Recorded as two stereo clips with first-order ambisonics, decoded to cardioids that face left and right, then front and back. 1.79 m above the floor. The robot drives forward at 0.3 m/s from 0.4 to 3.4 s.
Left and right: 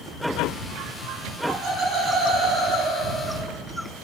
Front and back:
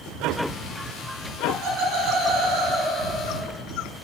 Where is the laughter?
155° right, 5.5 m.